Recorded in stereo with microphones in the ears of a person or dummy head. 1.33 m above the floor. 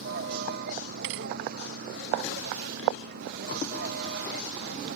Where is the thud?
65° right (ahead or behind).